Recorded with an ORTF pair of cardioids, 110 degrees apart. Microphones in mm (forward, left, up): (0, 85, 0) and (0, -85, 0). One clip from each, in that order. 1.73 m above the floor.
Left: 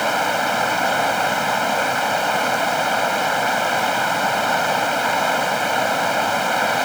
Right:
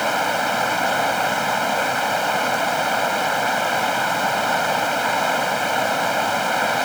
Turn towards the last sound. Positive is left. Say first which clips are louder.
# left 1 dB
turn(degrees=5)